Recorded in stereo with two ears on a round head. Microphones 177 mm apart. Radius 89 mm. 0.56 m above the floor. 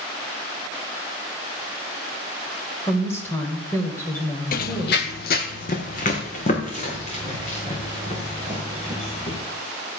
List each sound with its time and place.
2.9 s a woman speaking: 15° left (ahead or behind), 2 m
4.5 s running footsteps: 50° left (ahead or behind), 0.8 m; by 9.4 s 35° left (ahead or behind), 6 m